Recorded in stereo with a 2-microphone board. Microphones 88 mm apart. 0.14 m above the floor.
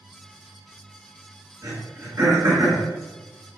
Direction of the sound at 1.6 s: 35° right (ahead or behind).